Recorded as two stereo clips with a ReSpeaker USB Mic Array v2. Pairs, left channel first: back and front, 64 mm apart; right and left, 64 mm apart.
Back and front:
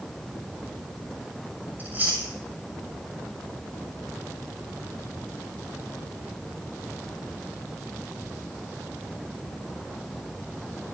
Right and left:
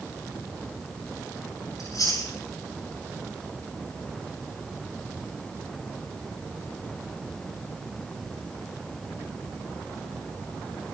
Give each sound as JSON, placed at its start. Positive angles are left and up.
{"t": 1.8, "sound": "chewing", "azimuth_deg": -65, "distance_m": 6.5}